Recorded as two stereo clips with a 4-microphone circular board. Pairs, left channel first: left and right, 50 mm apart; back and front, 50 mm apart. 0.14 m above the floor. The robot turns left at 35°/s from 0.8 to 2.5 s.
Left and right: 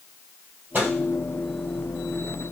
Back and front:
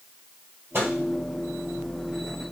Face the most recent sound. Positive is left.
turn(degrees=-105)